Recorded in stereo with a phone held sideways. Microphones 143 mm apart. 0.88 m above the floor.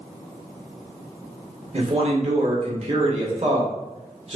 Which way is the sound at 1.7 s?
50° right (ahead or behind).